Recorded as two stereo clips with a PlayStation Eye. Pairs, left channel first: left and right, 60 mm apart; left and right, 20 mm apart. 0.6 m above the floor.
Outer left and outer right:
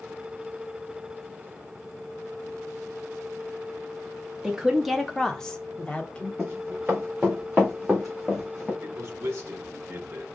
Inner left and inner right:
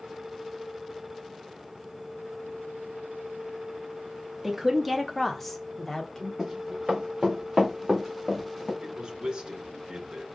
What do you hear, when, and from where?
4.4 s a woman speaking: 10° right (ahead or behind), 0.7 m; by 6.3 s 20° left (ahead or behind), 1.5 m
6.4 s running footsteps: 30° right (ahead or behind), 3 m; by 8.7 s 10° left (ahead or behind), 2.5 m
8.8 s a man speaking: 40° right (ahead or behind), 1.1 m